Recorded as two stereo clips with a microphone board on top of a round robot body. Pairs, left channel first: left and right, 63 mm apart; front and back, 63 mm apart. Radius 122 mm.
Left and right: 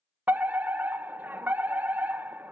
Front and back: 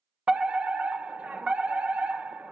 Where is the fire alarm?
125° right, 1.5 m.